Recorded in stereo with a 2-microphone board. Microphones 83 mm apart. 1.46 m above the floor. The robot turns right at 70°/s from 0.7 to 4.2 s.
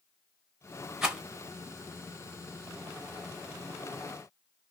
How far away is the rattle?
About 1.0 m.